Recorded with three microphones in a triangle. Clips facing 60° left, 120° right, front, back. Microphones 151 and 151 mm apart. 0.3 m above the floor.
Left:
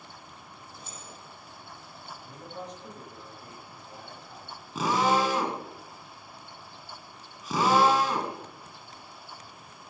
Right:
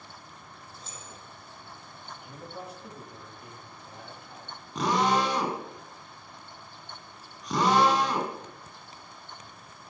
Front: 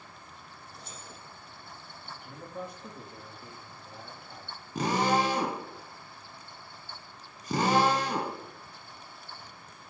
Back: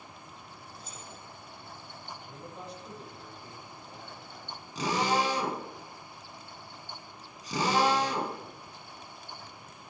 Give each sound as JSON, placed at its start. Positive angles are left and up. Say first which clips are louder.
{"t": 0.7, "sound": "keys jangling", "louder": "left 1 dB, even", "azimuth_deg": -15, "distance_m": 8.5}
{"t": 2.1, "sound": "a man speaking", "louder": "right 1 dB, front 2 dB", "azimuth_deg": -35, "distance_m": 6.5}
{"t": 4.8, "sound": "a drill", "louder": "even, front 2 dB", "azimuth_deg": -25, "distance_m": 3.0}